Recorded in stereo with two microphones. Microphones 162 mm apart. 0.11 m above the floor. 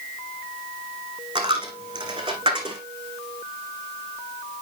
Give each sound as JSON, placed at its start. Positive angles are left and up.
{"t": 1.4, "sound": "a dropped coin", "side_deg": -30, "distance_m": 2.0}